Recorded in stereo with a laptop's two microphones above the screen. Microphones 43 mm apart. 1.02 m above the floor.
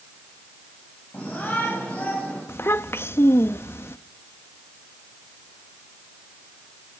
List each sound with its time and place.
1.1 s a shout: 50° left (ahead or behind), 8 m; by 2.4 s 45° left (ahead or behind), 9 m
2.5 s a child speaking: 70° left (ahead or behind), 0.7 m